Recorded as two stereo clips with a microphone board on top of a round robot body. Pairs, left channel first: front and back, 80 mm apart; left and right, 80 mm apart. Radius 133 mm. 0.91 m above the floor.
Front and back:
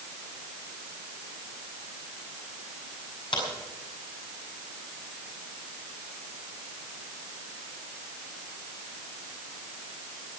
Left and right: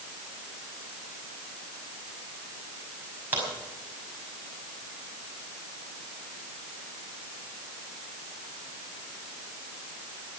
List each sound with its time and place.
3.3 s a crack: 25° right, 5 m